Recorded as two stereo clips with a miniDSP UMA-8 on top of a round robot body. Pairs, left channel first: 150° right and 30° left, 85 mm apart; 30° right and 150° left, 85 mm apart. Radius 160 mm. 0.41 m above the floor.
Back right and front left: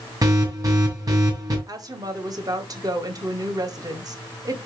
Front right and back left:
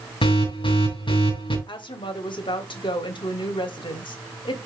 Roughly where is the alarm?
Ahead.